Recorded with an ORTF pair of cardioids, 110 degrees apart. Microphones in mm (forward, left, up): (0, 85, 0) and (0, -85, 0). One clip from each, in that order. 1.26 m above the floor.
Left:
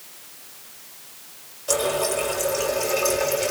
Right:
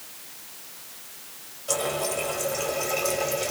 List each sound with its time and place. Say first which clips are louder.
1.7 s a running tap: left 4 dB; 35° left, 3.5 m